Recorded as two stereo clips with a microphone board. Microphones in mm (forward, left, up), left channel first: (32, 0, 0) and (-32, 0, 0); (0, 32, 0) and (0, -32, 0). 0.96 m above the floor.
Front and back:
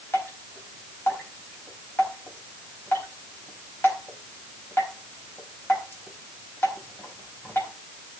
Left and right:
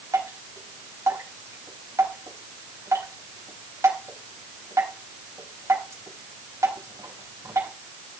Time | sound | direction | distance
0.1 | dripping | 55° right | 4.5 m